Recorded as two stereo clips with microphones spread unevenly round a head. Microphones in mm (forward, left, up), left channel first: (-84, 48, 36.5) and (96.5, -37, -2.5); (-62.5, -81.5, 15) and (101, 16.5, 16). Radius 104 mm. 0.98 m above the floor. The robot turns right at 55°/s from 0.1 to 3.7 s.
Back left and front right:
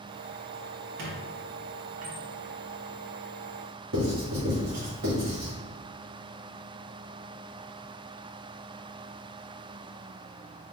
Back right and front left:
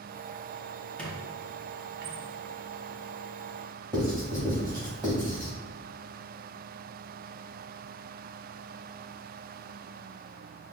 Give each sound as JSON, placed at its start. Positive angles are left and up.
{"t": 1.0, "sound": "a squeak", "azimuth_deg": -65, "distance_m": 0.8}
{"t": 3.9, "sound": "writing", "azimuth_deg": -40, "distance_m": 1.8}